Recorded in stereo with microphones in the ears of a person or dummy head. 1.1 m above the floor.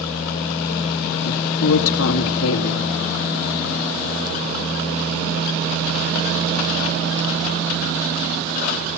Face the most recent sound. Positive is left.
turn(degrees=75)  # may be behind; listen again after turning